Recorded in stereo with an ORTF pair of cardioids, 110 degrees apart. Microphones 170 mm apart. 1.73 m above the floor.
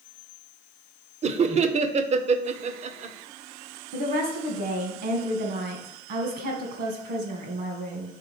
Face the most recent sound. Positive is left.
turn(degrees=-70)